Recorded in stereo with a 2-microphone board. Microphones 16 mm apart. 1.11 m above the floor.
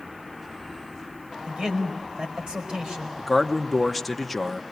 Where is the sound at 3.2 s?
5° left (ahead or behind), 0.9 m.